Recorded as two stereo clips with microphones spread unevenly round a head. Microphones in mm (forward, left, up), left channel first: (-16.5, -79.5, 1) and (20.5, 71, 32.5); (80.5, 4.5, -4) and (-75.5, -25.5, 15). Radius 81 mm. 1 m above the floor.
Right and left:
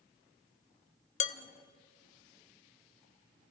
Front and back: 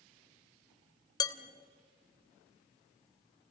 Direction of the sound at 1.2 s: 55° right.